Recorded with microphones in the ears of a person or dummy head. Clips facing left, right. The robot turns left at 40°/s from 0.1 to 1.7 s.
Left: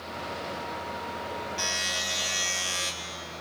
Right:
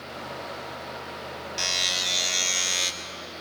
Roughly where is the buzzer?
Right.